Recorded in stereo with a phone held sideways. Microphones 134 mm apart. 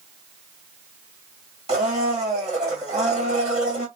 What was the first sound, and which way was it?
A blender, 55° right (ahead or behind).